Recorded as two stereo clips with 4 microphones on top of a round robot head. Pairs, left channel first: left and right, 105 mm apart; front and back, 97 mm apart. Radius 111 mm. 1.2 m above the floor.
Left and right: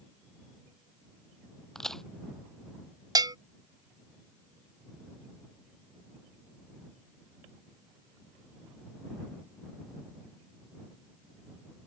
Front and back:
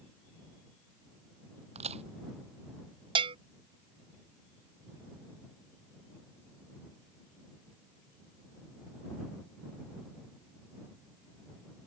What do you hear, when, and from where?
1.8 s a crack: 175° left
3.1 s a bell: 145° right